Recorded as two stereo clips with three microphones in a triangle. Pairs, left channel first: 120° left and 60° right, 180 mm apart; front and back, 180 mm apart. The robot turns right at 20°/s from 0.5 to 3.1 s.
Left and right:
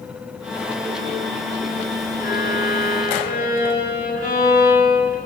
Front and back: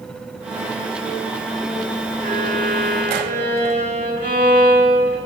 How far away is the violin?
About 8.5 m.